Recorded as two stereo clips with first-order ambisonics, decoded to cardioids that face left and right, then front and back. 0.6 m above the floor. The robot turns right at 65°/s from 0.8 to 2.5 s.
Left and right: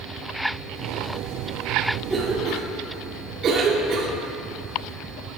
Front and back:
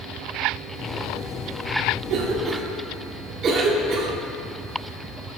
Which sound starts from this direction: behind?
A cough, at 2.1 s.